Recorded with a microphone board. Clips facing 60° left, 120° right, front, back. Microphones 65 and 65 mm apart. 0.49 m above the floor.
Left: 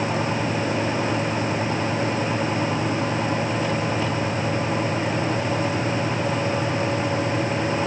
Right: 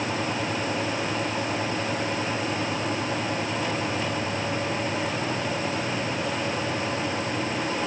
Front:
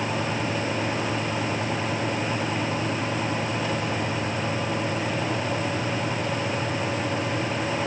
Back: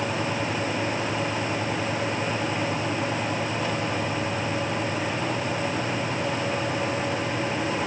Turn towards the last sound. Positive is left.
No sound to turn to.